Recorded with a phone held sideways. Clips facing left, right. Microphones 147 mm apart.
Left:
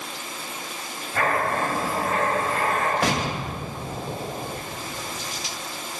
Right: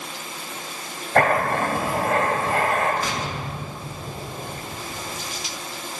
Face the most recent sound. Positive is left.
turn(degrees=90)